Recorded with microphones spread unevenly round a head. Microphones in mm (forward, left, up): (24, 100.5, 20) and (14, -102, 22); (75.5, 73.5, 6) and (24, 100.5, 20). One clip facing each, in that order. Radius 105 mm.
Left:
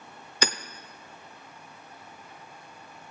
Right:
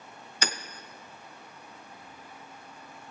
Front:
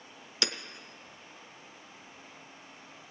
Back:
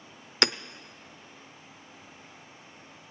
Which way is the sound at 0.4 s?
115° left.